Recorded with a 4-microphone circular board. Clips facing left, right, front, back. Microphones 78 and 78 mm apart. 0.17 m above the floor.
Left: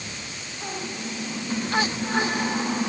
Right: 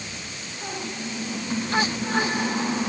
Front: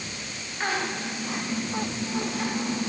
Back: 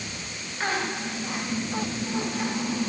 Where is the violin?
No violin in this recording.